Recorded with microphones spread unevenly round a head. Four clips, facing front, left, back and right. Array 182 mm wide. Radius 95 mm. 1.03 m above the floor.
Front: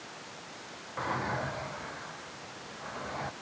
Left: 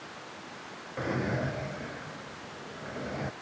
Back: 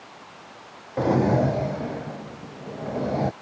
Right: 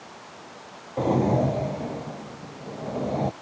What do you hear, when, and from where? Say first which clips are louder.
1.0 s a drawer: right 10 dB, back 13 dB; 145° right